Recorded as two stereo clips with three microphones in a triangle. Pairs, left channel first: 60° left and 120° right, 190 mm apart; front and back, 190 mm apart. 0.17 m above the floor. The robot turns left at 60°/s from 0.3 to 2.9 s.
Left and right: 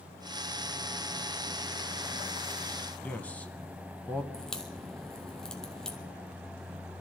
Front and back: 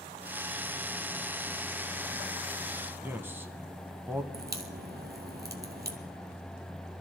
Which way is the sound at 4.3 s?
145° left.